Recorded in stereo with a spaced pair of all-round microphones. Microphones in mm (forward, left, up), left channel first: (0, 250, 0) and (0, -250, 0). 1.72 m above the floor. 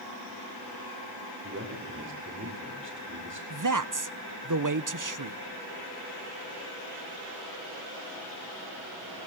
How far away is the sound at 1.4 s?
About 7 m.